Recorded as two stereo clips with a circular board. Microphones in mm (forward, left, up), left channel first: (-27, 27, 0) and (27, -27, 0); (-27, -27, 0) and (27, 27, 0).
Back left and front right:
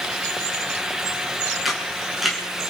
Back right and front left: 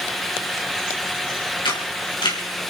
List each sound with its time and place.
1.6 s a camera shutter: 130° right, 4.5 m